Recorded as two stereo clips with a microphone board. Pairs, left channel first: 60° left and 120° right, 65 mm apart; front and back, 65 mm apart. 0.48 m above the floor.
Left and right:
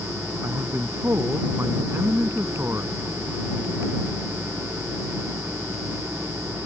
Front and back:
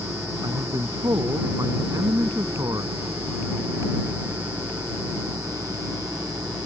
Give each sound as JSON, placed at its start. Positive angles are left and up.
{"t": 0.4, "sound": "a man speaking", "azimuth_deg": -165}